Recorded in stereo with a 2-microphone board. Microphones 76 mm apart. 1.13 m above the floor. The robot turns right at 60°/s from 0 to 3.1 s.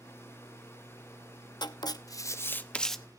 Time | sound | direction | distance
1.6 | writing | 95° left | 0.8 m